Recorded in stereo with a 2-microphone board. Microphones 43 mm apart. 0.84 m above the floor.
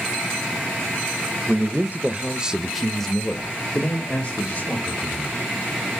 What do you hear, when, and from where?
1.5 s a man speaking: 55° right (ahead or behind), 0.9 m; by 5.4 s 35° left (ahead or behind), 2 m